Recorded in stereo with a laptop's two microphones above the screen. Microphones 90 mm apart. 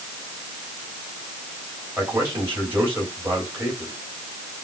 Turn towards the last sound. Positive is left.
turn(degrees=-25)  # may be behind; listen again after turning